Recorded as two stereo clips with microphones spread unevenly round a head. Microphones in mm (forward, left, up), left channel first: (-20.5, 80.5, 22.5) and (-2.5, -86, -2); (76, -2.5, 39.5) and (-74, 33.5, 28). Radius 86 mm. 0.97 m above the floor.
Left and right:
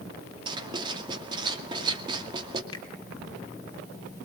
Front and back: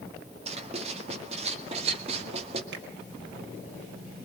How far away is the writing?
About 2 m.